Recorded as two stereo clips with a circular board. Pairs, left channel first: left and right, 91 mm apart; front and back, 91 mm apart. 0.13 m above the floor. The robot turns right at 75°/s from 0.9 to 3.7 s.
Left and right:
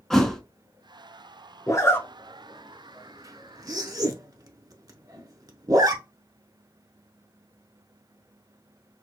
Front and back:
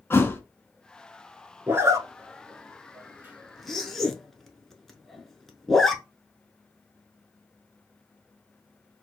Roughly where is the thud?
Ahead.